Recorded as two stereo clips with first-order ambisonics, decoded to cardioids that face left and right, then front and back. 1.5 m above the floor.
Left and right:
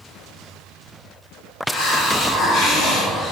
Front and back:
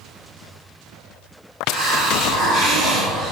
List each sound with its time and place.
1.7 s a hiss: 150° left, 1.4 m